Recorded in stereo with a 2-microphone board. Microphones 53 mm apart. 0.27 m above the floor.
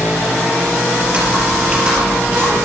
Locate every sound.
1.0 s typing on a keyboard: 20° right (ahead or behind), 5.5 m